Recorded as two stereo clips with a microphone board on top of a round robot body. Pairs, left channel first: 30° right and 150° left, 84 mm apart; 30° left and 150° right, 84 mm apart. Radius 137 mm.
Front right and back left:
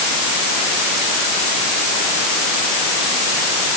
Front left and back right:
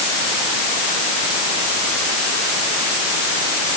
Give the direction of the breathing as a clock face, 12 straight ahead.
I don't hear breathing.